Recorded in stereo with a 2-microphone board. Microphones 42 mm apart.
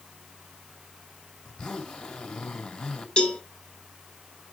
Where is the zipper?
15° left (ahead or behind), 2.5 m.